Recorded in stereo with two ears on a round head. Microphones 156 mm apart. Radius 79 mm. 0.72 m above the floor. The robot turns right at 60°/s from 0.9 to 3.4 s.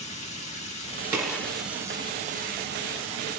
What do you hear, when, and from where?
0.0 s running water: 140° left, 1.4 m; by 3.4 s 70° right, 1.4 m
1.1 s a gunshot: 10° right (ahead or behind), 1.6 m; by 1.5 s 15° left (ahead or behind), 1.6 m